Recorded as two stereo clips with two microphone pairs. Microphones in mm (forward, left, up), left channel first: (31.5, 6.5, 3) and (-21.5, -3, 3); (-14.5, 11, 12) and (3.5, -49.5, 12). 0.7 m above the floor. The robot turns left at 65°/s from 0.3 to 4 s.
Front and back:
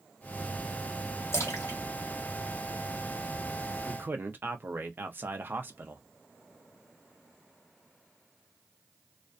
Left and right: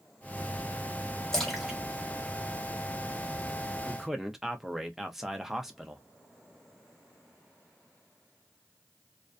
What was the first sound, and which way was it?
A splash, 25° left.